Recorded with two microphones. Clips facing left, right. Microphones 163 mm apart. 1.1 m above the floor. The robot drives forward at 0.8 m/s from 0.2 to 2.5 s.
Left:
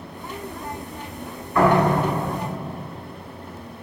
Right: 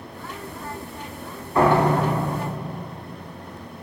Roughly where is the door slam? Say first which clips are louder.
Even; right.